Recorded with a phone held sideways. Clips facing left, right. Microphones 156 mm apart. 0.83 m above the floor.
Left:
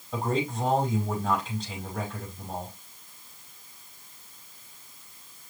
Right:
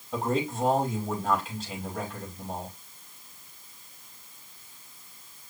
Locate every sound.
0.1 s a man speaking: 5° right (ahead or behind), 5.5 m